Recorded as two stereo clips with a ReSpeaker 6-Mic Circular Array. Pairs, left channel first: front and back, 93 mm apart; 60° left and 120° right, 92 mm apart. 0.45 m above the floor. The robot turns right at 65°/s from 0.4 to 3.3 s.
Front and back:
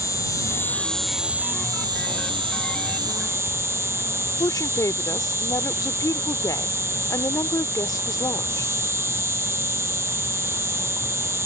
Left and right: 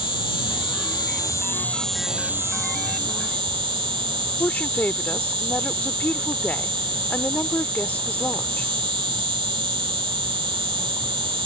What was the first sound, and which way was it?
An insect, 45° left.